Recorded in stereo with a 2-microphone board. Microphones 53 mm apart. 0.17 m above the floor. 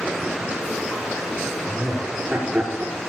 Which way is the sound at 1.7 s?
35° right (ahead or behind).